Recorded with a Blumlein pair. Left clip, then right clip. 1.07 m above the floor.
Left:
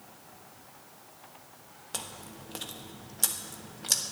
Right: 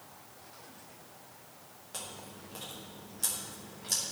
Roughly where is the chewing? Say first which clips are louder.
Left 3 dB; ahead left.